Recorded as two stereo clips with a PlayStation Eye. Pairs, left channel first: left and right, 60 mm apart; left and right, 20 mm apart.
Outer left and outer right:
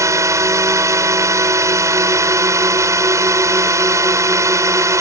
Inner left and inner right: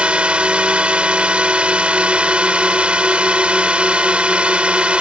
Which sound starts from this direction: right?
A drone, at 0.0 s.